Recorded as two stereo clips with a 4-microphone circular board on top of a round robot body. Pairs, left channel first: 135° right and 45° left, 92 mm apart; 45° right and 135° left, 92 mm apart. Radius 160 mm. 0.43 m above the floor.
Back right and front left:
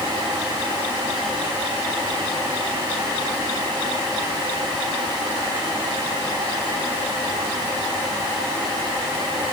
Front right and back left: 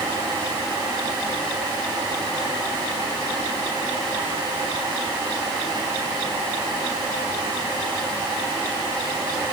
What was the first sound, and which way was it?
Only background noise.